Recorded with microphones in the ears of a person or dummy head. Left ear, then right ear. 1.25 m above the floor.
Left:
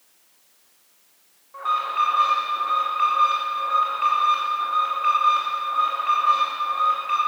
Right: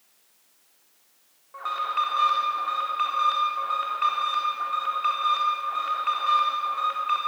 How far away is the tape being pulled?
I don't hear tape being pulled.